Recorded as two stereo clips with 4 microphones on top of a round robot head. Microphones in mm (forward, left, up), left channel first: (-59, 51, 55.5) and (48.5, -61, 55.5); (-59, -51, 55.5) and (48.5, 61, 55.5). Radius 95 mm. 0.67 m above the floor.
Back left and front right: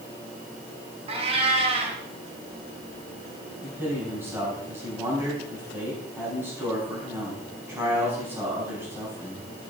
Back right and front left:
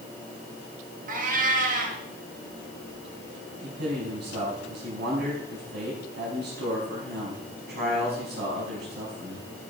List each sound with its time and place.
1.1 s a cat meowing: 10° left, 2 m
3.6 s a man speaking: 30° left, 5.5 m